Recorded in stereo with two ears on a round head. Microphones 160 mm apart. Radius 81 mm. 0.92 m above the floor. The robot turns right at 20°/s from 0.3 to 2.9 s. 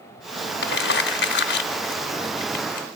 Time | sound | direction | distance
0.6 | crumpling | 60° left (ahead or behind) | 0.9 m